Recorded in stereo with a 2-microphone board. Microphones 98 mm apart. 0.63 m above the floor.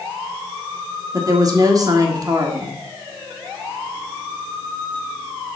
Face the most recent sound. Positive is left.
turn(degrees=-40)  # may be behind; listen again after turning